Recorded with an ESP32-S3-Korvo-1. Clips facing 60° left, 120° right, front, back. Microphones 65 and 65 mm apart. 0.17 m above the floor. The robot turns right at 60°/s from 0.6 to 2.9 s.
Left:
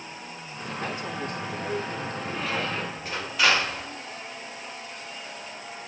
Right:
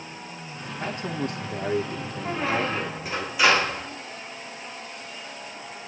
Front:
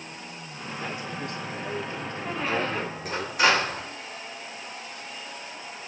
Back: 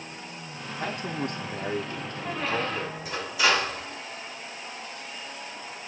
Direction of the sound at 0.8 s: 165° right.